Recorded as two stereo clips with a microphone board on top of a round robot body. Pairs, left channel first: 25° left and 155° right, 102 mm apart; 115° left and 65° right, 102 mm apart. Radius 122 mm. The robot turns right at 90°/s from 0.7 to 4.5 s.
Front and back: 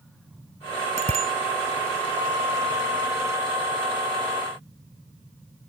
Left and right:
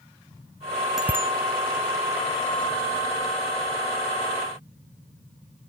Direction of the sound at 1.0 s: 155° right.